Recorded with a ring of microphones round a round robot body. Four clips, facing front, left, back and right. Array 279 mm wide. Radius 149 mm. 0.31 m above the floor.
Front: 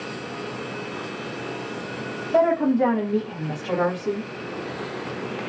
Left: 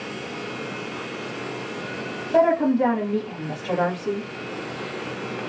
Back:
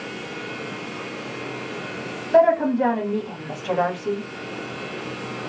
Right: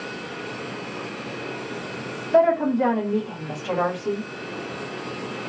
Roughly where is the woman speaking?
Behind right.